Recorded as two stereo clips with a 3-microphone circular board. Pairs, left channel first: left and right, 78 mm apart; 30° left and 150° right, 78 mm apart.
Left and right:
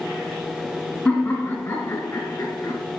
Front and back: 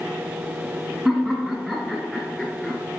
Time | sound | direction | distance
1.1 | laughter | 125° left | 1.6 m